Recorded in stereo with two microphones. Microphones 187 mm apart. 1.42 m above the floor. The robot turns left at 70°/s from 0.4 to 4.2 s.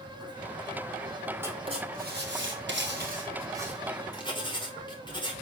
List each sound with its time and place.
1.4 s writing: 10° right (ahead or behind), 4.5 m; by 5.3 s 25° left (ahead or behind), 4.5 m